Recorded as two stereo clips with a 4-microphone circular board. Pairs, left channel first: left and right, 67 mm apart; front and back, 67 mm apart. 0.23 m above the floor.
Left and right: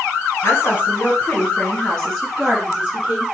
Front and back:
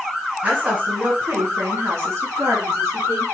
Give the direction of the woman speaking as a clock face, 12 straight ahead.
8 o'clock.